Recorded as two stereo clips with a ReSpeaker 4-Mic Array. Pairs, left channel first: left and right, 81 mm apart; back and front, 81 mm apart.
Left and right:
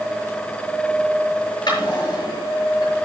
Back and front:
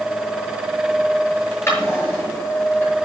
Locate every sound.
1.7 s a drawer: 120° left, 8 m